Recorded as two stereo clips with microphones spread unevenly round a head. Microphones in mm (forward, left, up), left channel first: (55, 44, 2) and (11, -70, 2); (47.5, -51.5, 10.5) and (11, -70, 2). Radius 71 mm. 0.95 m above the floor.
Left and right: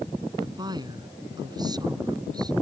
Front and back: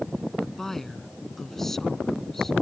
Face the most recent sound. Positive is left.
turn(degrees=-55)